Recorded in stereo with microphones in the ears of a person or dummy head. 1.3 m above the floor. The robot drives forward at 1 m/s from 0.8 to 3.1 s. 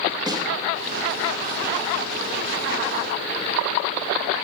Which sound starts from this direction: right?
A snare drum, at 0.3 s.